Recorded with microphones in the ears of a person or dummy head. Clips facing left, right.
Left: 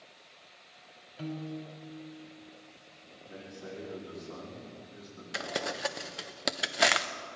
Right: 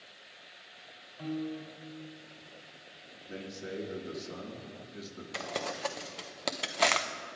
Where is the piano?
30° left (ahead or behind), 1.8 m.